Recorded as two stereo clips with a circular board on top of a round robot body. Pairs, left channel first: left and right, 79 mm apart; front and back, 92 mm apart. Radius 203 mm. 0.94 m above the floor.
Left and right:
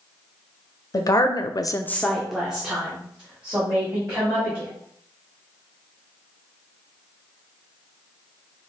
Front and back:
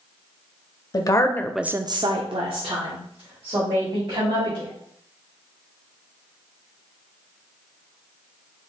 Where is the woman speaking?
45° left, 0.8 m; by 4.7 s 160° right, 3 m.